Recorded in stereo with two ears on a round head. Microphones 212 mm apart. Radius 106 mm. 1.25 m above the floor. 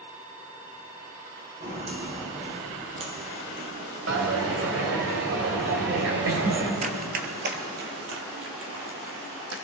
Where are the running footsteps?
30° right (ahead or behind), 1.4 m; by 9.6 s 65° right (ahead or behind), 3 m.